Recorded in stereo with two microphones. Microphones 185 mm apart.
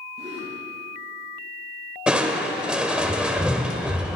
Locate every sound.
0.2 s a gasp: 30° right (ahead or behind), 5 m
2.1 s crushing: 5° right (ahead or behind), 1.2 m